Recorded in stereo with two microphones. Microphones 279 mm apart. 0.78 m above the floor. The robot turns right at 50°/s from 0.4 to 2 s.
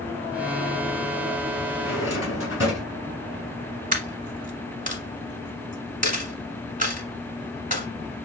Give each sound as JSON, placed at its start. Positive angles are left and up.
{"t": 1.8, "sound": "a drawer", "side_deg": 60, "distance_m": 3.0}
{"t": 3.9, "sound": "a dropped coin", "side_deg": -30, "distance_m": 1.3}